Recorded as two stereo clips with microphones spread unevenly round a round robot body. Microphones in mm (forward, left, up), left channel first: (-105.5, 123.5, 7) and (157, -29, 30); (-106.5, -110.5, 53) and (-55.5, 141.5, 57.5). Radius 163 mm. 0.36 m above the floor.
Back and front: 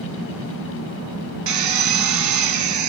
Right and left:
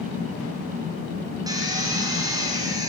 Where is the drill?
Straight ahead, 1.6 m.